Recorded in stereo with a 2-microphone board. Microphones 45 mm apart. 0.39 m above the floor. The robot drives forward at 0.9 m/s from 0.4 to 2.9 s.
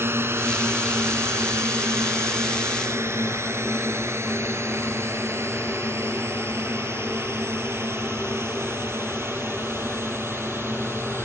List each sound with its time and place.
0.0 s a drone: 60° right (ahead or behind); by 11.3 s 65° right (ahead or behind)